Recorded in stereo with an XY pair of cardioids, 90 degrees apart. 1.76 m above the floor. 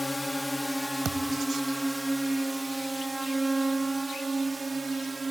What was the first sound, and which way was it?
A drone, 15° left.